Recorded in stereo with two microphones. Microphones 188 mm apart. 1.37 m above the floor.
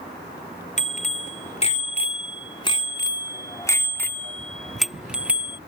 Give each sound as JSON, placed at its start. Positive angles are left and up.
{"t": 0.8, "sound": "a bicycle bell", "side_deg": 40}